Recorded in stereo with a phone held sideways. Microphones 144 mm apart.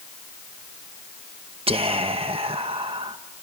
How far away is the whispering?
About 0.9 m.